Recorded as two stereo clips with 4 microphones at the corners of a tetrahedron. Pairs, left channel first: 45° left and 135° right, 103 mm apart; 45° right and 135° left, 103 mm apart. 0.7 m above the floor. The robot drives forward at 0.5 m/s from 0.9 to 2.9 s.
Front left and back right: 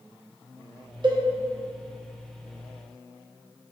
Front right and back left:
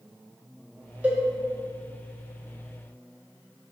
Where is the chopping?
I don't hear chopping.